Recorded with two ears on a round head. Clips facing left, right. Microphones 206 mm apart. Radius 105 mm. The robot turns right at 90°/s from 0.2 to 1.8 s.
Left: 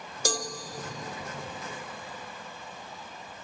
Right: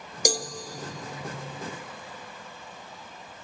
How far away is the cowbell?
About 0.8 m.